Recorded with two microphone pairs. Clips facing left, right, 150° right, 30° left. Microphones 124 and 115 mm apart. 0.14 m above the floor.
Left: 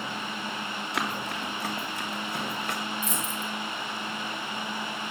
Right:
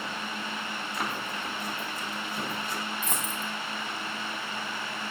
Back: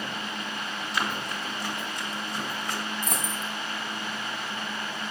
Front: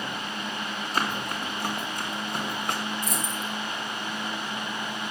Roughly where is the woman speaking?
No woman speaking in this recording.